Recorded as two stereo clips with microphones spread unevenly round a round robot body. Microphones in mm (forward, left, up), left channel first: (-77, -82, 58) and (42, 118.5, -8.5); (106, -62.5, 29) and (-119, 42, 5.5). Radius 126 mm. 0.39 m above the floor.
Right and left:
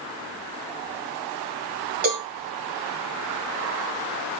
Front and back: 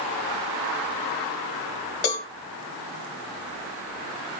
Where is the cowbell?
15° left, 2 m.